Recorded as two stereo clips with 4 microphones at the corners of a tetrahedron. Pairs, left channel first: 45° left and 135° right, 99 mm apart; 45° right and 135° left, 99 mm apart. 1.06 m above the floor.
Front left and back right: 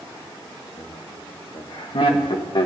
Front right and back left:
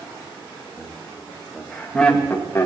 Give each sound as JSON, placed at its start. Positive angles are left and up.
{"t": 0.8, "sound": "laughter", "azimuth_deg": 70, "distance_m": 1.6}